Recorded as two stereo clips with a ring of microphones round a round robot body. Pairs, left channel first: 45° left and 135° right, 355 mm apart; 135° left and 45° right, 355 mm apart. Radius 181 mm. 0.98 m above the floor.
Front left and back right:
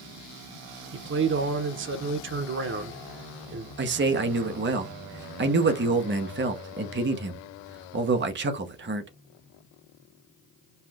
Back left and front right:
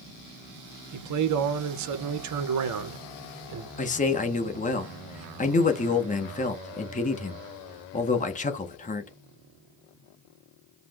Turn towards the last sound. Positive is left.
turn(degrees=-170)